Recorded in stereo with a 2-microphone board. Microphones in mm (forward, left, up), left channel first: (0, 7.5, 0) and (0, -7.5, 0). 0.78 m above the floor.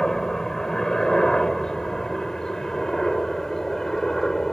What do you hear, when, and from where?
0.0 s a helicopter: 30° left (ahead or behind)